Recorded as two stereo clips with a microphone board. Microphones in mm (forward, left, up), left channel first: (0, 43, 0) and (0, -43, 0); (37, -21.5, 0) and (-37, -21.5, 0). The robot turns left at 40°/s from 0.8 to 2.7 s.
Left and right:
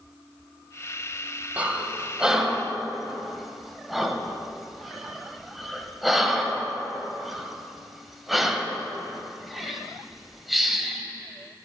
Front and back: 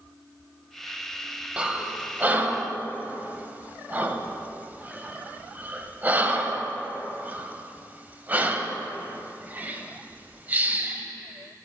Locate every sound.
1.6 s breathing: 130° right, 0.6 m; by 11.0 s 175° right, 0.6 m